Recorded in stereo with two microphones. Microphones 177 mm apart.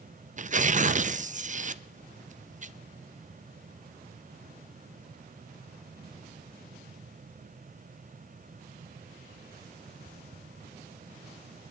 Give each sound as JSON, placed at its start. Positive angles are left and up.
{"t": 0.4, "sound": "tearing paper", "side_deg": -45, "distance_m": 0.6}